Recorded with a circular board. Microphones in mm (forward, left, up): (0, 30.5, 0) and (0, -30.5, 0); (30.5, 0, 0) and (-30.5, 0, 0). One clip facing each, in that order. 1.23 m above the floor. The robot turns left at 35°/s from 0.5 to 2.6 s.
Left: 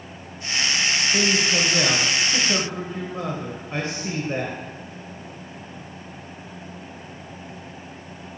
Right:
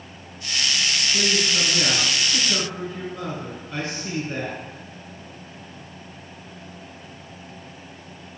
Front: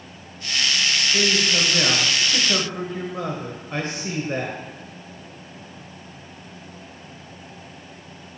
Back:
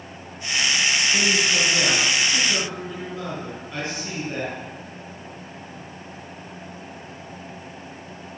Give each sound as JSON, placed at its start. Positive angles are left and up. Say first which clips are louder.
{"t": 1.1, "sound": "a man speaking", "louder": "left 2 dB, even", "azimuth_deg": 100, "distance_m": 1.2}